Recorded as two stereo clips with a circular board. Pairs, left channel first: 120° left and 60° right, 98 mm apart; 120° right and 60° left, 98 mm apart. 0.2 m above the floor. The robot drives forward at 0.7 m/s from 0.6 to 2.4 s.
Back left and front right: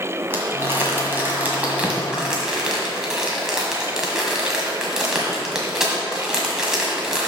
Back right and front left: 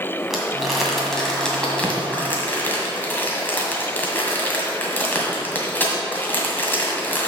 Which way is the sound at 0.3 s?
25° right.